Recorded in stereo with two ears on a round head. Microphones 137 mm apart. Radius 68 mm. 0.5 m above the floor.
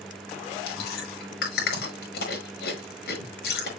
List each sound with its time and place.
0.7 s chewing: 75° left (ahead or behind), 5.5 m